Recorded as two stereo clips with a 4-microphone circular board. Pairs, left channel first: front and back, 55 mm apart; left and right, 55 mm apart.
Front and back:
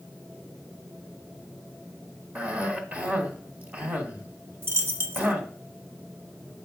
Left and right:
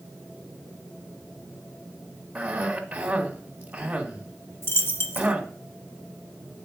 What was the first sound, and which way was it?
A cough, 140° right.